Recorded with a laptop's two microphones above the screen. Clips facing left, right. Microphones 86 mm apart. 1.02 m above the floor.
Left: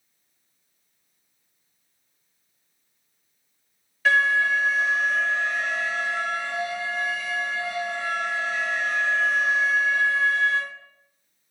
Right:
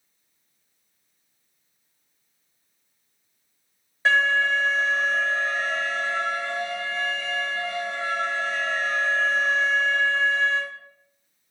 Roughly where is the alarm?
Right.